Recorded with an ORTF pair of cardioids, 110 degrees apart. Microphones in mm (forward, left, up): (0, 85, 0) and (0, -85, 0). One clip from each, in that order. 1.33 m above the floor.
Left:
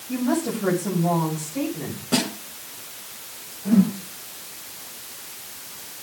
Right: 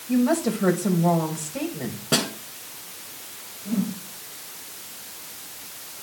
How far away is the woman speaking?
About 6 m.